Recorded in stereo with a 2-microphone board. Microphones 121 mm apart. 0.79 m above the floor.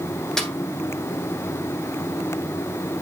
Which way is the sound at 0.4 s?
5° left (ahead or behind).